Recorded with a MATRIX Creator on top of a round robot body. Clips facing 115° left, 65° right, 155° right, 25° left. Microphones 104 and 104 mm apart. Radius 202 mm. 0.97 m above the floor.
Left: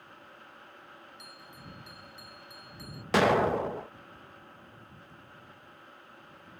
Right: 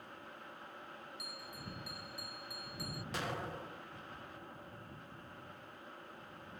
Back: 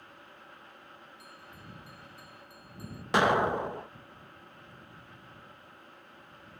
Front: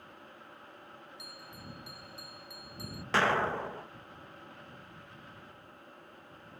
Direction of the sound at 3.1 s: 125° left.